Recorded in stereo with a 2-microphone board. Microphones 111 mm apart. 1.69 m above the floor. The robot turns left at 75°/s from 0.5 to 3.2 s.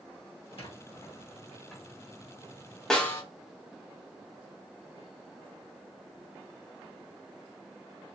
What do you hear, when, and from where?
0.6 s a squeak: 55° left (ahead or behind), 1.1 m; by 1.9 s 5° right (ahead or behind), 1.1 m
2.9 s a snare drum: 5° left (ahead or behind), 0.7 m; by 3.2 s 25° left (ahead or behind), 0.7 m